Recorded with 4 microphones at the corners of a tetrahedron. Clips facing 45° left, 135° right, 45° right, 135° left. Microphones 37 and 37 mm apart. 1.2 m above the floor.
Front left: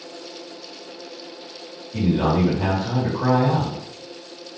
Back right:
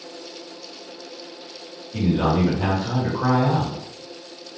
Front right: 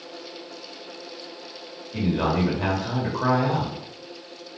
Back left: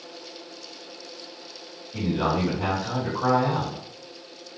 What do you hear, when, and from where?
1.9 s a man speaking: 50° right, 1.3 m